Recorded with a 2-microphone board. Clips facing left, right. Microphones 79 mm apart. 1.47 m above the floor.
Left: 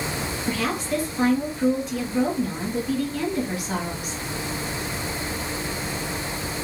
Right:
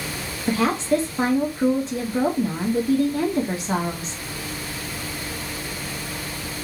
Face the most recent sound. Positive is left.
turn(degrees=-30)  # may be behind; listen again after turning